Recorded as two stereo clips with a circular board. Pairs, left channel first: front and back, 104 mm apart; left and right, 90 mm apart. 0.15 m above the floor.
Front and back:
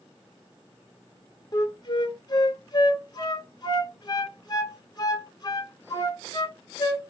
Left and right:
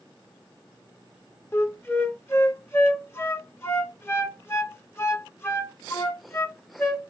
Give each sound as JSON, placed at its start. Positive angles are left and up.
{"t": 1.5, "sound": "a flute", "azimuth_deg": 35, "distance_m": 0.5}